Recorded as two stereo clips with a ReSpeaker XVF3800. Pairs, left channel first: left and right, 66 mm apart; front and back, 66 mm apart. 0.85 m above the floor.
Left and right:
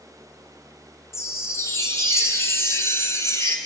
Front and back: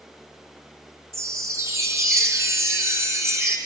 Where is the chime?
135° left, 2.5 m.